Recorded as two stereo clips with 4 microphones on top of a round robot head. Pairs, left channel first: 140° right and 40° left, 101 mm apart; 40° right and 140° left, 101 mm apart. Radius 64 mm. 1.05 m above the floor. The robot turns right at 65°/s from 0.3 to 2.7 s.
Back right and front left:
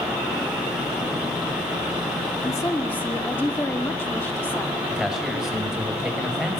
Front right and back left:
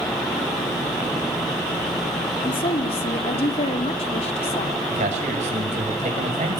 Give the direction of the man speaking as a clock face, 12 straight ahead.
8 o'clock.